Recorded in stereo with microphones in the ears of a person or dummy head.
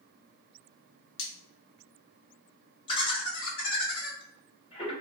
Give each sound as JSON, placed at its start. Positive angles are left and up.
{"t": 1.2, "sound": "cutlery clinking", "side_deg": 65, "distance_m": 0.9}
{"t": 2.9, "sound": "laughter", "side_deg": 20, "distance_m": 1.2}